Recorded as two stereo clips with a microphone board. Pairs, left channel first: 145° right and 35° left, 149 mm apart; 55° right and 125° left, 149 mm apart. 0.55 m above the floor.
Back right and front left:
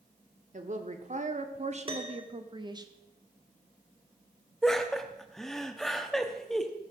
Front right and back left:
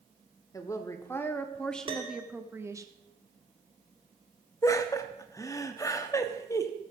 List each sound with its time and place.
0.5 s a woman speaking: 10° left, 1.5 m; by 2.9 s 75° left, 0.9 m
1.9 s a piano: 80° left, 1.6 m
4.6 s laughter: 65° right, 1.0 m